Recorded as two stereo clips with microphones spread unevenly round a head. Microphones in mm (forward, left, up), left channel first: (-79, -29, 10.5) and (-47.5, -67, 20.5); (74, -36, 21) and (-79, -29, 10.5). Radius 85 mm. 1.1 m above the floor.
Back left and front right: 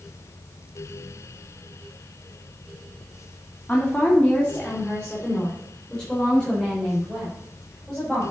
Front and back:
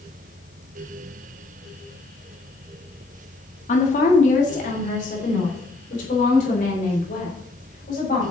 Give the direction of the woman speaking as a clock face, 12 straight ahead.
10 o'clock.